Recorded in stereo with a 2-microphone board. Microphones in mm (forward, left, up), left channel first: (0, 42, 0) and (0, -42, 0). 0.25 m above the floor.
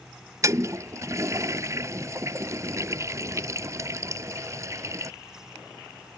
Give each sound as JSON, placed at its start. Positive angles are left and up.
{"t": 0.4, "sound": "a toilet flushing", "side_deg": -40}